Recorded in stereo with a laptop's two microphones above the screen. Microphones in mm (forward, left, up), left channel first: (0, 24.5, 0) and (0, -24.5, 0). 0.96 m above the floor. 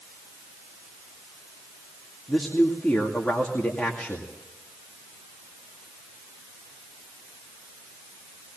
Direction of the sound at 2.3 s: 20° left (ahead or behind).